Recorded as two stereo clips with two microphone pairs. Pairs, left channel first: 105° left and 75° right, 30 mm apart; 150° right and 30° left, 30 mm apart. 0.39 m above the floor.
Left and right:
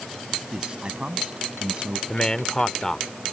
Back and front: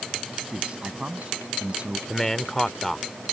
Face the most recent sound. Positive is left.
turn(degrees=135)